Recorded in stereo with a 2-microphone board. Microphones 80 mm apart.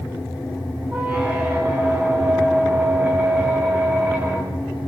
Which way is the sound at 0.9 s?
15° right (ahead or behind).